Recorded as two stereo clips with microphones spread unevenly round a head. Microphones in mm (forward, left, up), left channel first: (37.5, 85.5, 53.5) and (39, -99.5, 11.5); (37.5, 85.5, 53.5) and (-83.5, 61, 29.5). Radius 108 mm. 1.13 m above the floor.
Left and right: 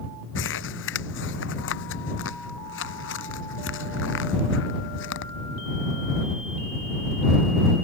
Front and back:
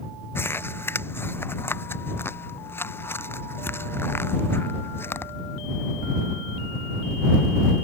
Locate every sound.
0.3 s crumpling: 80° left